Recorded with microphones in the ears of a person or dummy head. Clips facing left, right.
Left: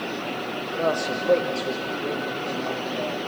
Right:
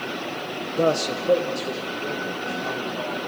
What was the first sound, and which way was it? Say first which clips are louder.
A man speaking: right 3 dB; 45° right (ahead or behind).